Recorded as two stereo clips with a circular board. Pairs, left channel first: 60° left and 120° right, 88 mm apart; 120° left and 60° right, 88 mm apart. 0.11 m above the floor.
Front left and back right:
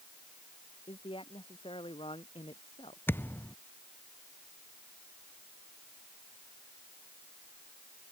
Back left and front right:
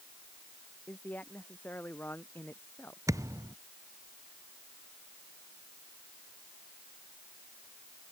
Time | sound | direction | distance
0.9 | a man speaking | 50° left | ?
3.1 | a thud | 5° right | ?